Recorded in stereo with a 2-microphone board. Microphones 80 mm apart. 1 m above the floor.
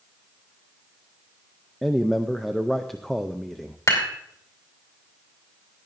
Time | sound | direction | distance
1.8 | a man speaking | 5° left (ahead or behind) | 0.5 m
3.9 | dishes clattering | 40° left (ahead or behind) | 3 m